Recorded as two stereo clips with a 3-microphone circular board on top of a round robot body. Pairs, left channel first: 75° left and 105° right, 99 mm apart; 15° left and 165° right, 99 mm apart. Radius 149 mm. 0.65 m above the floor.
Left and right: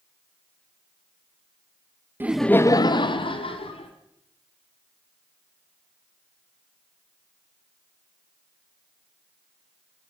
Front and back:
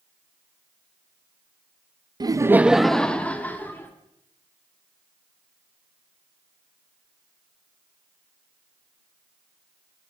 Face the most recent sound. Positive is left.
turn(degrees=85)